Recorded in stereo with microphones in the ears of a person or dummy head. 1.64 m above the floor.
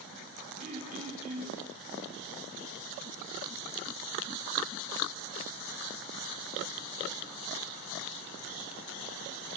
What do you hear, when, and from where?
0.6 s throat clearing: 50° right (ahead or behind), 5 m